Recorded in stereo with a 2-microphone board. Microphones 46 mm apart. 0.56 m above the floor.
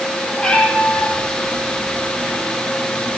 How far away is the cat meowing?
About 5 m.